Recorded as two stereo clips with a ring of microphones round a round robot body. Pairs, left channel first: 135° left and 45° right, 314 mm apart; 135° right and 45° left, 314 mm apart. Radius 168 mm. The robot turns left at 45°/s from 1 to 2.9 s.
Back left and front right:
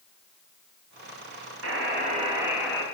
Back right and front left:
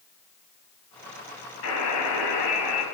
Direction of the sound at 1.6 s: 90° right.